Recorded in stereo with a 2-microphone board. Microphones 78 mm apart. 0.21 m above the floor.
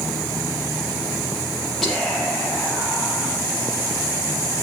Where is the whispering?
5° left (ahead or behind), 5 m.